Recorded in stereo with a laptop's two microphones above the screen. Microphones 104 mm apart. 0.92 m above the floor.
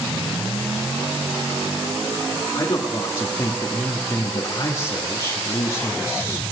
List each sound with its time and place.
2.5 s a man speaking: 40° left (ahead or behind), 1.8 m